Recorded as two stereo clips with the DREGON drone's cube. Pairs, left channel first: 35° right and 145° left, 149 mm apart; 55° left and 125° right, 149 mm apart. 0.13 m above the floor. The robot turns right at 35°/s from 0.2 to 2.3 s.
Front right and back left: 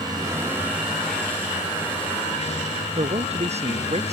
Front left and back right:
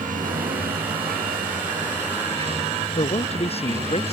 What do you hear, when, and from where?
0.0 s running water: 150° right; by 4.1 s 75° right
3.0 s a man speaking: 105° left